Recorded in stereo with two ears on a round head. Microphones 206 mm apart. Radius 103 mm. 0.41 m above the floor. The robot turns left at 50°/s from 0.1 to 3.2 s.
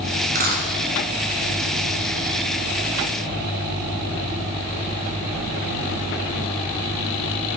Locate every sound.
0.3 s a dropped coin: 35° right (ahead or behind), 3 m; by 0.6 s 50° right (ahead or behind), 3 m